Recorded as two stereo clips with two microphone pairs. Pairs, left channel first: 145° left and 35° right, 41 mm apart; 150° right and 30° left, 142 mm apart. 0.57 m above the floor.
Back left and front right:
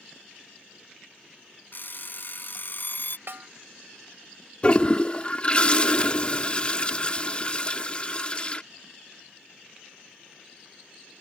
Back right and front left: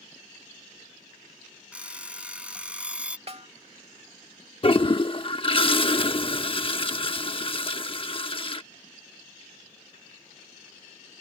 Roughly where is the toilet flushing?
Behind.